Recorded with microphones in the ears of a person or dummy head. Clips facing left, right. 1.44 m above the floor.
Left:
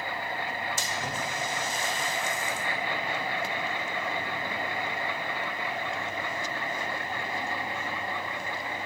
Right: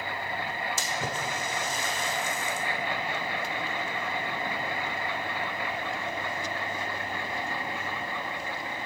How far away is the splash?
About 0.9 m.